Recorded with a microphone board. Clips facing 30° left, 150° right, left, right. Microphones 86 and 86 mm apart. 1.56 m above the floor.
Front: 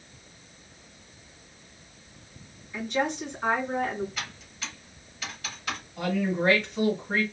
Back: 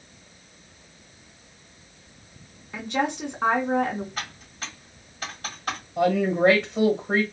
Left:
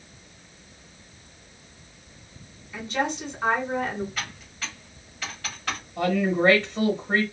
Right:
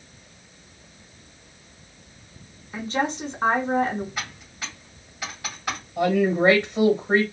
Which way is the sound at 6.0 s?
165° right.